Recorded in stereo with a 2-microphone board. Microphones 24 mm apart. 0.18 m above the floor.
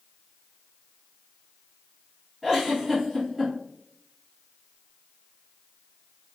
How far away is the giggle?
About 1.4 m.